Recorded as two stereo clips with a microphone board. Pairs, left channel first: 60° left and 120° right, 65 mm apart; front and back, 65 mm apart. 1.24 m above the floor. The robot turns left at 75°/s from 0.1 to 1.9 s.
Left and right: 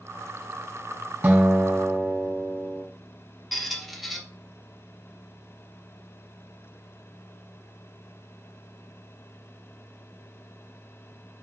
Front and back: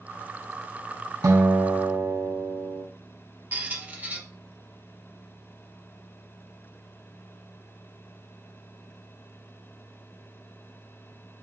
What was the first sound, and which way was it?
A guitar, 170° right.